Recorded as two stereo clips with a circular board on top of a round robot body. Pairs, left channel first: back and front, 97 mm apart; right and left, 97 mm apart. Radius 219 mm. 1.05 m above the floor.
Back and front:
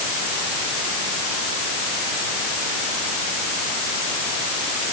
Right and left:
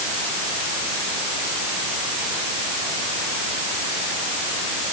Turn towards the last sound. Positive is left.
No sound to turn to.